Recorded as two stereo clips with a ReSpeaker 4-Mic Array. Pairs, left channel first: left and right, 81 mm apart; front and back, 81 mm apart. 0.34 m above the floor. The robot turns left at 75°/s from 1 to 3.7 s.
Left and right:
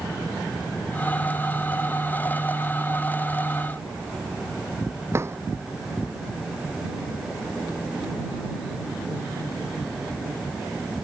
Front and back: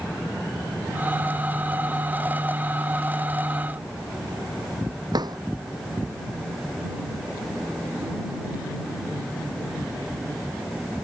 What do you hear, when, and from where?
5.1 s a drawer: 145° right